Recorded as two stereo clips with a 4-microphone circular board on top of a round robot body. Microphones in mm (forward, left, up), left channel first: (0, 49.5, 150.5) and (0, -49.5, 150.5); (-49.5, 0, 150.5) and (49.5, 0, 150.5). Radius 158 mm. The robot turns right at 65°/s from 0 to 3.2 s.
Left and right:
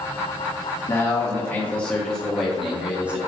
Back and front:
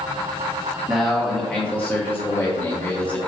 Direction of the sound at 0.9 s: 80° left.